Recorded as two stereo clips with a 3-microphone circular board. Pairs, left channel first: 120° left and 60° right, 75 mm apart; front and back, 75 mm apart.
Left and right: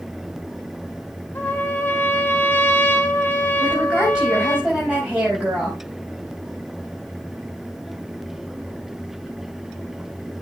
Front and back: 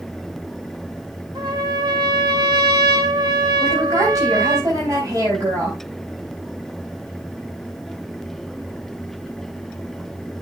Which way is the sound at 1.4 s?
175° right.